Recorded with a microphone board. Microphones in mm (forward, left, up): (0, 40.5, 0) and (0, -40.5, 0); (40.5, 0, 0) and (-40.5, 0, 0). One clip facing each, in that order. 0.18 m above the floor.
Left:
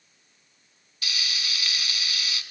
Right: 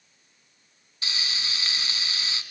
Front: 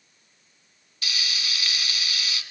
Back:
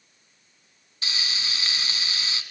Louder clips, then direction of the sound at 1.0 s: Even, even; 135° right.